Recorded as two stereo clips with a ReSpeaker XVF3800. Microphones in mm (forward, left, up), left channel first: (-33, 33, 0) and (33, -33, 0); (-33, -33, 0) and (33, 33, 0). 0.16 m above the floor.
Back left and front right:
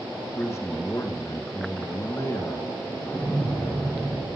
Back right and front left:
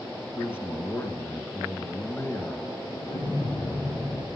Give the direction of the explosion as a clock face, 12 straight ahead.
5 o'clock.